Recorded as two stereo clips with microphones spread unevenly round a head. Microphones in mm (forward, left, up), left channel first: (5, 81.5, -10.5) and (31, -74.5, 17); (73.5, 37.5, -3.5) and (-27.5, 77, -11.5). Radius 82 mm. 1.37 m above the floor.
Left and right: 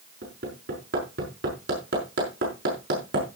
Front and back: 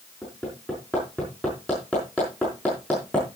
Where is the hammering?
105° right, 5.5 m.